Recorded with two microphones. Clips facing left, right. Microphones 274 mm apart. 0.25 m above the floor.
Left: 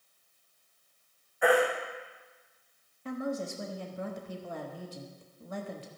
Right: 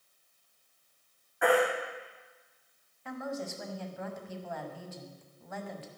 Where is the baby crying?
85° right, 4 m.